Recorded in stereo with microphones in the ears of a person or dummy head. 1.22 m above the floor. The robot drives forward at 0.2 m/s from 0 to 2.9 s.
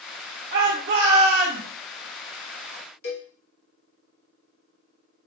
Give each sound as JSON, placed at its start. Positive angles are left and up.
{"t": 0.5, "sound": "a shout", "side_deg": -45, "distance_m": 1.4}
{"t": 3.0, "sound": "a cowbell", "side_deg": 55, "distance_m": 1.9}